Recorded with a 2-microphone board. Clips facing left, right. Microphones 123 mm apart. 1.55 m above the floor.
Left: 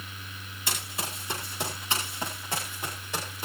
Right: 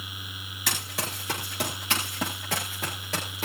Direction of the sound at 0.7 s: 70° right (ahead or behind).